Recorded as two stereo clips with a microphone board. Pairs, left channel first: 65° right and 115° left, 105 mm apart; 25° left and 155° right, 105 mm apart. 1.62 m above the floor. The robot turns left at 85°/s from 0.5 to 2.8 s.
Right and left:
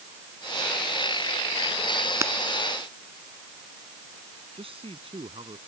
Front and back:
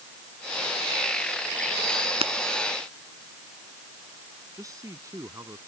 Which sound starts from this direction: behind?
Breaking glass, at 2.2 s.